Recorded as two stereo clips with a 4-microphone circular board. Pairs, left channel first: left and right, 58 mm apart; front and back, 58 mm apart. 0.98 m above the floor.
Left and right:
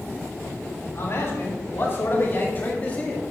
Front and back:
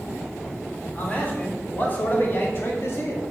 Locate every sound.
0.9 s a man speaking: 60° left, 3.5 m; by 3.2 s 25° left, 1.9 m